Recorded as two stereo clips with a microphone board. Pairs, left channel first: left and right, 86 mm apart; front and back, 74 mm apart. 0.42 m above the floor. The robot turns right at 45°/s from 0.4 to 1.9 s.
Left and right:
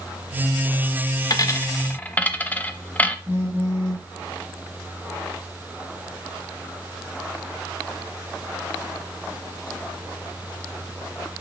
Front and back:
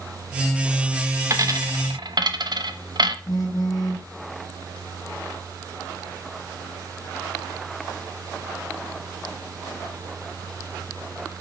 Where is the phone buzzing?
30° right, 3 m.